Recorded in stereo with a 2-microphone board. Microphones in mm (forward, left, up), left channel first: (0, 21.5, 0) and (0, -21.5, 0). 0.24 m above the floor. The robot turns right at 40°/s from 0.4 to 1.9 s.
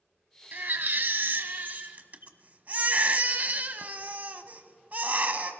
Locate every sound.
0.5 s a baby crying: 110° right, 0.8 m; by 5.5 s 50° right, 0.8 m